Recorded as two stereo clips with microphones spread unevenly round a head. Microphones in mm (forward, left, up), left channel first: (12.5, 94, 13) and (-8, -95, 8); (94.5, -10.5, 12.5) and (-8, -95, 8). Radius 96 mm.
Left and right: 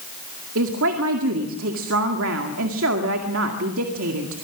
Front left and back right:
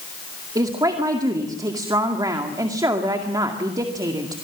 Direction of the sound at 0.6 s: 80° right.